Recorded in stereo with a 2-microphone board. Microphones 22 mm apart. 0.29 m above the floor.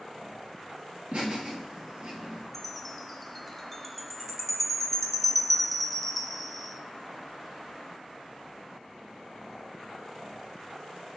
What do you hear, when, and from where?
1.1 s laughter: 65° right (ahead or behind), 5 m; by 2.4 s 60° right (ahead or behind), 5.5 m
2.5 s a chime: centre (ahead or behind), 1.1 m